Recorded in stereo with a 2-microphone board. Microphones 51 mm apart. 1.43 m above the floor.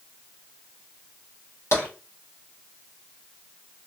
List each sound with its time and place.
1.7 s tapping: 55° left (ahead or behind), 1.3 m